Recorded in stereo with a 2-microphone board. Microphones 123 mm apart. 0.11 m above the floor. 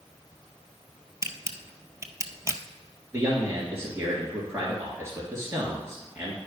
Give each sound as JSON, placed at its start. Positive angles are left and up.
{"t": 1.2, "sound": "a camera shutter", "side_deg": -25, "distance_m": 0.5}
{"t": 3.1, "sound": "a man speaking", "side_deg": -25, "distance_m": 2.0}